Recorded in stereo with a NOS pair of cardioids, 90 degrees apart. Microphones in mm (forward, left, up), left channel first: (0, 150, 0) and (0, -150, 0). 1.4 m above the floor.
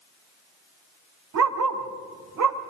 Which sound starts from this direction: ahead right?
A dog barking, at 1.3 s.